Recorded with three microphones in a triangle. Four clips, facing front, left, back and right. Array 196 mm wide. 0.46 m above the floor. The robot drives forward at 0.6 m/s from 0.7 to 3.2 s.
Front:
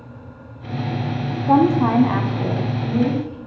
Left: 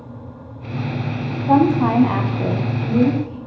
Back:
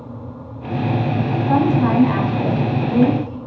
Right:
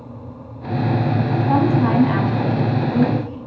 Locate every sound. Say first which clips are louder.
1.5 s a woman speaking: left 4 dB, front 2 dB; 35° left, 1.0 m; by 3.4 s 150° left, 1.0 m